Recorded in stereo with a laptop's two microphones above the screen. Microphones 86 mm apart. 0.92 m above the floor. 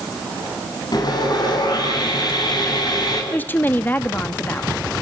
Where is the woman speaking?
20° left (ahead or behind), 1.3 m.